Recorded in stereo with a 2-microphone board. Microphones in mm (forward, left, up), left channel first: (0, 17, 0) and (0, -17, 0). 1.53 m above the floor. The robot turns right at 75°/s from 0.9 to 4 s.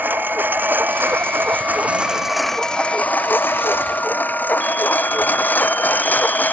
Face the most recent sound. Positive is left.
turn(degrees=55)  # may be behind; listen again after turning